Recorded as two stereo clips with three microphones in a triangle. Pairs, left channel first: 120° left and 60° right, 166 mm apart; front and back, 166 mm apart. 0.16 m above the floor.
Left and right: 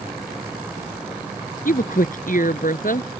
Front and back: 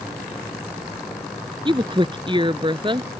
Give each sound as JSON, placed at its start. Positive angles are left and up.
{"t": 1.6, "sound": "a woman speaking", "azimuth_deg": 125}